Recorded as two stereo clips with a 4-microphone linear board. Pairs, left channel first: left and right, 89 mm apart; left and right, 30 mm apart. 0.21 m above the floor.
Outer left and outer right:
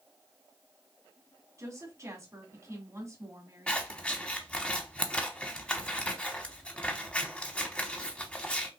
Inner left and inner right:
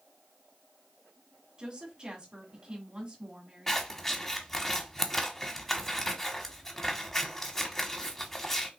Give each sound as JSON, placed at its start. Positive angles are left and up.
{"t": 1.6, "sound": "a woman speaking", "side_deg": -35, "distance_m": 1.8}
{"t": 3.7, "sound": "scissors", "side_deg": 15, "distance_m": 0.9}